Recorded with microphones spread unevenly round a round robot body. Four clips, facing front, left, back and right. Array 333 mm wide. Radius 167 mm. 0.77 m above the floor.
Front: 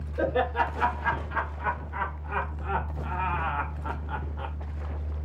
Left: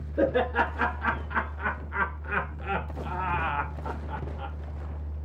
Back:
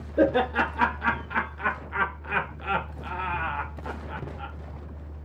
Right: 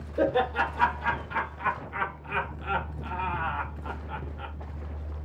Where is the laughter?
165° left, 1.9 m; by 4.5 s 5° left, 1.0 m.